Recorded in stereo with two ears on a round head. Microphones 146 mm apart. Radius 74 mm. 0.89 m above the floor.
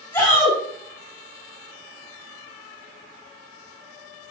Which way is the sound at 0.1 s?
10° left (ahead or behind).